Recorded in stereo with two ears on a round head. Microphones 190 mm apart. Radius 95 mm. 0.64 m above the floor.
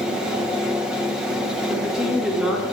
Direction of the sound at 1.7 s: 5° right (ahead or behind).